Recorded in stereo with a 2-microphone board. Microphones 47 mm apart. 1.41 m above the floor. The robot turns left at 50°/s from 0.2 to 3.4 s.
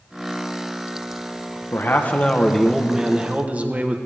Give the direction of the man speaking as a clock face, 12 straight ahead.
10 o'clock.